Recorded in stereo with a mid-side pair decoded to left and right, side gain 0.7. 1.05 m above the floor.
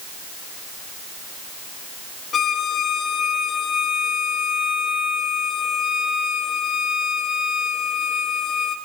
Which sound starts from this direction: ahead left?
A violin, at 2.3 s.